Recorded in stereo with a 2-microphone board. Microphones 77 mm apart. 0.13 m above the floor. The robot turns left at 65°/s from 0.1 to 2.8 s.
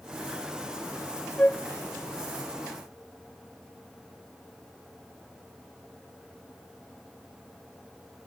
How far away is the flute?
About 0.7 m.